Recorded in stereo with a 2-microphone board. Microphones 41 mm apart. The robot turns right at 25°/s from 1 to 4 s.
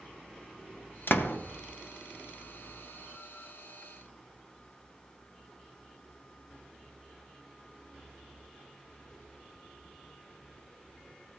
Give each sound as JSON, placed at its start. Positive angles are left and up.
{"t": 1.1, "sound": "a door slam", "side_deg": 60, "distance_m": 0.7}